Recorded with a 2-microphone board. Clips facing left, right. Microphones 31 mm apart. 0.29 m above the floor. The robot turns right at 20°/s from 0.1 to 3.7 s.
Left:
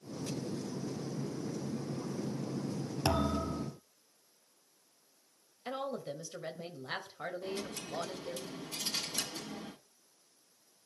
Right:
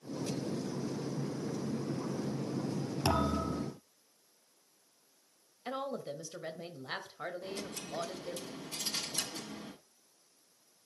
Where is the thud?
Centre (ahead or behind), 2 m; by 3.7 s 15° left (ahead or behind), 2 m.